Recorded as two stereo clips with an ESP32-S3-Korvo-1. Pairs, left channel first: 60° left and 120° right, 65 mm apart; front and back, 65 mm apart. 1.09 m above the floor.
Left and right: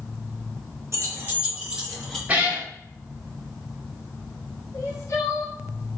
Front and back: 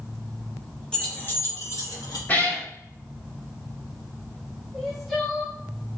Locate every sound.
0.9 s keys jangling: 75° right, 0.7 m; by 2.2 s 25° right, 1.0 m
2.3 s a cat meowing: 55° right, 0.9 m
4.7 s crying: 85° left, 1.0 m